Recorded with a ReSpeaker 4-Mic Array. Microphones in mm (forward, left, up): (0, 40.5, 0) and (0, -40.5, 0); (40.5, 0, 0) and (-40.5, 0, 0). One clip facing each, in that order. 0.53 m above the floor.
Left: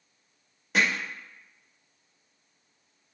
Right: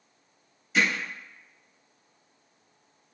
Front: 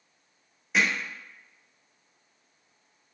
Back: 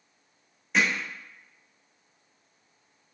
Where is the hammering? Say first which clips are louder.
Even, even; 85° left, 1.1 m.